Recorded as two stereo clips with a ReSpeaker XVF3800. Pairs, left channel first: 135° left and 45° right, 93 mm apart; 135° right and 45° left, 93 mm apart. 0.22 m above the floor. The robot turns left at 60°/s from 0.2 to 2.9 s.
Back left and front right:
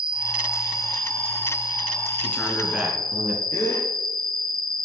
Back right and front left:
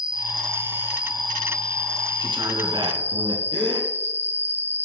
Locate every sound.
0.0 s an insect: 35° right, 1.2 m; by 4.9 s 160° left, 1.2 m
2.2 s a man speaking: 70° left, 2 m; by 3.4 s 25° left, 2 m
3.5 s a gasp: 75° left, 2.5 m